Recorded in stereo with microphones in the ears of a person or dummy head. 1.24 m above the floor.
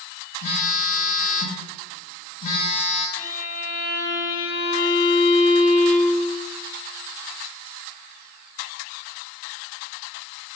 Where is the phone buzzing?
45° left (ahead or behind), 0.7 m.